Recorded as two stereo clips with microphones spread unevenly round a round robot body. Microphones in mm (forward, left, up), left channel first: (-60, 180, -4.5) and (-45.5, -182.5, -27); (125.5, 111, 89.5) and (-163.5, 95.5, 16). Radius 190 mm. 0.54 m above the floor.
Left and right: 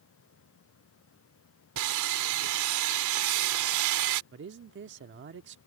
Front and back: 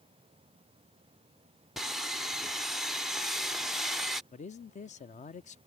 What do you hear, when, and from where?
1.8 s sawing: 100° right
4.3 s a man speaking: 70° right